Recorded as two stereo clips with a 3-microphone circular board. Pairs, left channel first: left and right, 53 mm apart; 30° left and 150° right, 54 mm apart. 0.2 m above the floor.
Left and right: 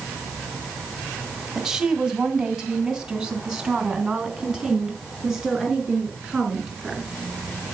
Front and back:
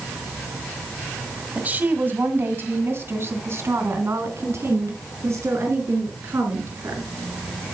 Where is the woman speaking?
165° right, 1.6 m; by 7.1 s 175° right, 4 m.